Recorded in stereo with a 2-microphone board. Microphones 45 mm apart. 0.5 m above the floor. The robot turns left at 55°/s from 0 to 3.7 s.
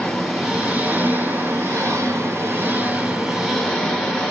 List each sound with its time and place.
0.0 s an engine running: 15° left, 3 m; by 4.3 s 170° left, 3 m